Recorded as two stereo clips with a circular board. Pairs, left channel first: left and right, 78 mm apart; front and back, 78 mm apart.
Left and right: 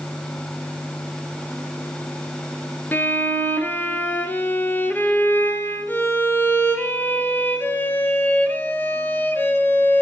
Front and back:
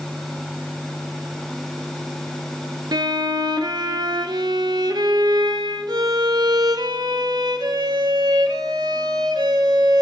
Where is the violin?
155° left, 0.6 m.